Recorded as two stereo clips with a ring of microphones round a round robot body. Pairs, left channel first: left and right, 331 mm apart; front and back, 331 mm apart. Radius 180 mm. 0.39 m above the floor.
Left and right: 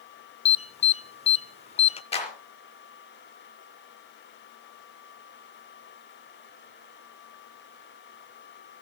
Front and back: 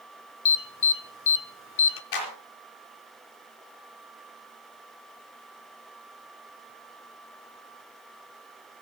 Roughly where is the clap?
Ahead.